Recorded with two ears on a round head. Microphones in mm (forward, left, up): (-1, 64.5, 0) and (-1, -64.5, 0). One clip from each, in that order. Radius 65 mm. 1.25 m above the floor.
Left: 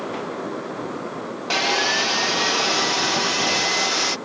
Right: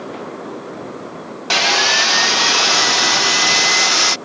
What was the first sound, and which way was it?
Sawing, 30° right (ahead or behind).